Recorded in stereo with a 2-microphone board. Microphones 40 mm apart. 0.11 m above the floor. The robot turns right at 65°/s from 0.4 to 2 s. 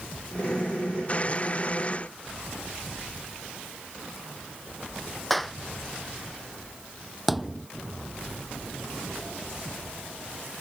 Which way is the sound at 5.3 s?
5° left (ahead or behind).